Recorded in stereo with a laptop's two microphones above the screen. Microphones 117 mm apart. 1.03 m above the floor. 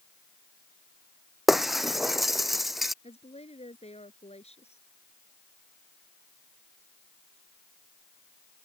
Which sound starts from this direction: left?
A woman speaking, at 3.0 s.